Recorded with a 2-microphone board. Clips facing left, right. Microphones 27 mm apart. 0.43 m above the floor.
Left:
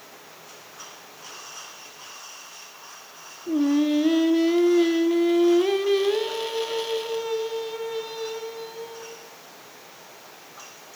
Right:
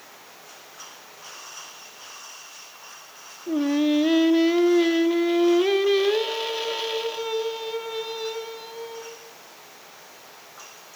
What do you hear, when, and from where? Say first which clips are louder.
3.5 s singing: left 1 dB; 15° right (ahead or behind), 0.5 m